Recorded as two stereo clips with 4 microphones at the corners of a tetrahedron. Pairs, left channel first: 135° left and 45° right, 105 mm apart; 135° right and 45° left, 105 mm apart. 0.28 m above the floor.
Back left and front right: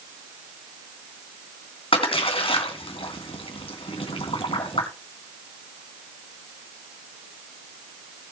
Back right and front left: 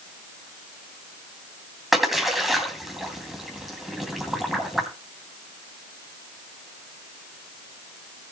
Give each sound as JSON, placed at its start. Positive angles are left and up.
{"t": 1.9, "sound": "a splash", "azimuth_deg": 135, "distance_m": 2.5}